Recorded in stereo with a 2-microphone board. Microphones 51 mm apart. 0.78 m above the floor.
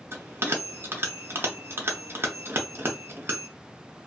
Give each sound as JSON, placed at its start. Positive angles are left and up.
{"t": 0.1, "sound": "a bell", "side_deg": -50, "distance_m": 0.7}